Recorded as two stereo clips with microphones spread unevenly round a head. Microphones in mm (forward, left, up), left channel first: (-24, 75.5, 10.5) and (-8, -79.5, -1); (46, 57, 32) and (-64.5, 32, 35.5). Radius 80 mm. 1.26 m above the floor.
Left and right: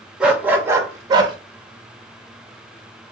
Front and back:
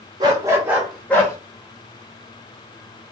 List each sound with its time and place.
0.2 s a dog barking: 170° right, 0.7 m; by 1.4 s 40° right, 0.7 m